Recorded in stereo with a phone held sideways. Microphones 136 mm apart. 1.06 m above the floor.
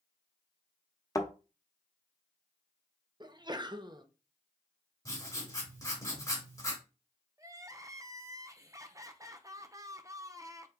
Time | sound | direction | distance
1.1 | a thud | 25° left (ahead or behind) | 0.8 m
3.2 | a sneeze | 35° right (ahead or behind) | 0.6 m
5.0 | writing | 25° left (ahead or behind) | 2.5 m
7.4 | crying | 25° right (ahead or behind) | 0.5 m